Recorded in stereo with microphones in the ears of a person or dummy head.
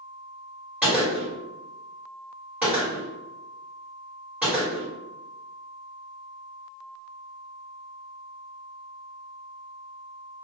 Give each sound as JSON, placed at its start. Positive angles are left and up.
{"t": 0.8, "sound": "a gunshot", "side_deg": -10, "distance_m": 1.3}